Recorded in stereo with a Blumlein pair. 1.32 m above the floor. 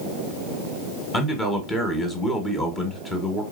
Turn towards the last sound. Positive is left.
turn(degrees=20)